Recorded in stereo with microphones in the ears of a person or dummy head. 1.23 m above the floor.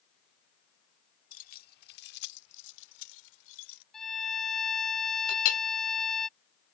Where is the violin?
Centre (ahead or behind).